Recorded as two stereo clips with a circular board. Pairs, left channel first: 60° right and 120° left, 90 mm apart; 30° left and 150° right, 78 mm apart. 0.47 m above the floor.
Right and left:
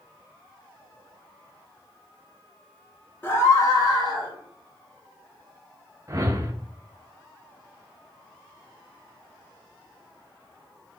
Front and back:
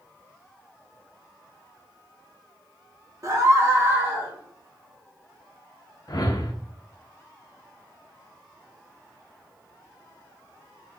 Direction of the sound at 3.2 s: 120° right.